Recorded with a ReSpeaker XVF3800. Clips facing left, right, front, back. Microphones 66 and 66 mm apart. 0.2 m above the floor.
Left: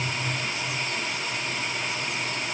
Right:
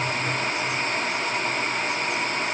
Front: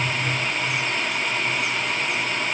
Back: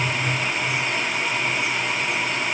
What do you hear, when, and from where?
Only background noise.